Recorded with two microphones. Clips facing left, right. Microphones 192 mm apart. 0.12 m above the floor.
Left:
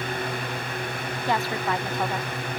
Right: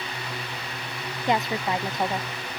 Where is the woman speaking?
20° right (ahead or behind).